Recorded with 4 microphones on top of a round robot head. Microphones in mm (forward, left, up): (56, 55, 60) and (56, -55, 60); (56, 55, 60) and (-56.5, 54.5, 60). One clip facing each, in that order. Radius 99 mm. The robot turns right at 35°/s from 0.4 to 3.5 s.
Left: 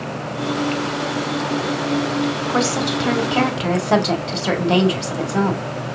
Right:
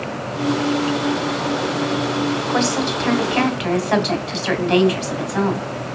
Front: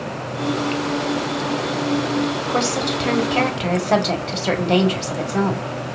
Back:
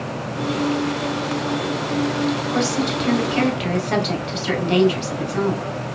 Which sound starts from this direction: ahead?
A woman speaking, at 2.5 s.